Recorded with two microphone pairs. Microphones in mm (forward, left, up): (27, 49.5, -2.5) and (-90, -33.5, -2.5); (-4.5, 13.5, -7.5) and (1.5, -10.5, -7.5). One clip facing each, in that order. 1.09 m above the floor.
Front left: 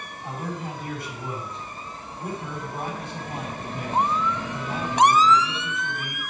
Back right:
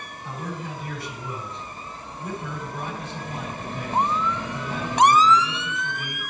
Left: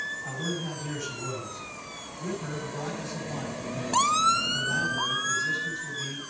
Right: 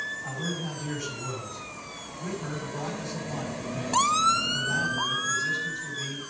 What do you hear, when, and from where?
0.2 s a man speaking: 15° left, 7.5 m